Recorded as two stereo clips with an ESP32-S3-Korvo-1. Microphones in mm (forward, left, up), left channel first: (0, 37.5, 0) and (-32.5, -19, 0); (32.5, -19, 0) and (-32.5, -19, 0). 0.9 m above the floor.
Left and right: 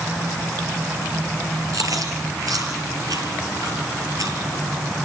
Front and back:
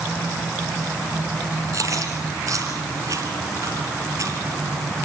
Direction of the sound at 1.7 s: 145° right.